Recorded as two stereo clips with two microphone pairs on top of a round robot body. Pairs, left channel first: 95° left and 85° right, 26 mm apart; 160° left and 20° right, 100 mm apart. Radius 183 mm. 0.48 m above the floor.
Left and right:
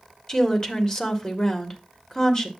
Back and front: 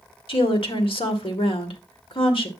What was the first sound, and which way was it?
A woman speaking, 160° left.